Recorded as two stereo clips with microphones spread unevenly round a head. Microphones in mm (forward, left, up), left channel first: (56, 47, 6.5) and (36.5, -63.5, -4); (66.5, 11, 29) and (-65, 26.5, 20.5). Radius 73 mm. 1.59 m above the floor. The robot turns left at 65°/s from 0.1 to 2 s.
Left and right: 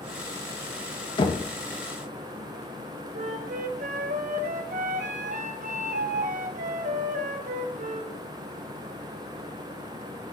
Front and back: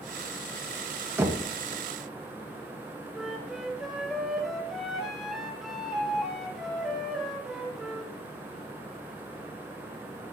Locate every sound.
1.2 s knocking: 100° left, 1.0 m; by 1.4 s 85° left, 1.0 m
3.1 s a flute: 100° right, 1.1 m